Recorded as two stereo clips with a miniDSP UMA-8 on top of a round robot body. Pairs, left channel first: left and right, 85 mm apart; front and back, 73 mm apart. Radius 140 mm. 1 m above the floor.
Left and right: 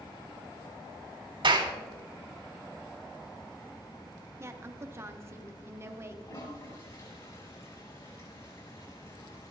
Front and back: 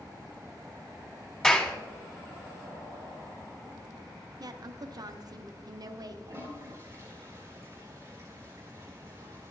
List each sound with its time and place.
1.4 s a clap: 80° right, 2.5 m
4.4 s a woman speaking: 150° right, 0.8 m
6.2 s a toilet flushing: 125° left, 4.5 m